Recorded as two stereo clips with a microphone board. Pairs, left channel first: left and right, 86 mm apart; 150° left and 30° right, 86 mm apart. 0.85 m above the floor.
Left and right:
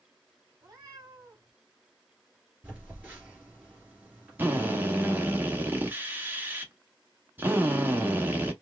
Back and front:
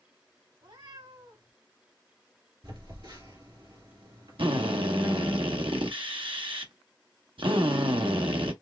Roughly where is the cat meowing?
Ahead right.